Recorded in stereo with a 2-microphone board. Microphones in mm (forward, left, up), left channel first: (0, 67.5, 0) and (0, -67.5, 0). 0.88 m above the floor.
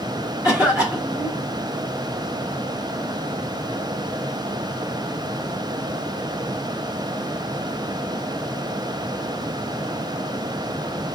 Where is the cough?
10° right (ahead or behind), 1.2 m.